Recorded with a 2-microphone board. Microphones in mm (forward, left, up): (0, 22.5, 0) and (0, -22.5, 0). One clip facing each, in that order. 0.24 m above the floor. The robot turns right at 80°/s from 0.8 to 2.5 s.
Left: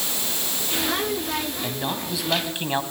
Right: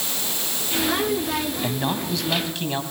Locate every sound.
1.6 s a man speaking: 30° right, 2.0 m; by 2.8 s 40° left, 2.0 m